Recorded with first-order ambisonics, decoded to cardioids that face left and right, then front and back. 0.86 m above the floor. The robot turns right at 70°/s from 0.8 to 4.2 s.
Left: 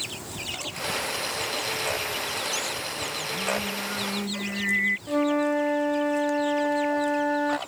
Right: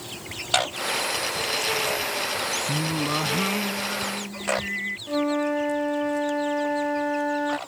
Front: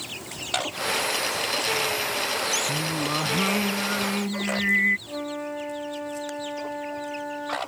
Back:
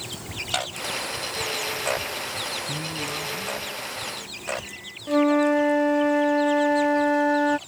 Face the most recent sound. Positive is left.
turn(degrees=180)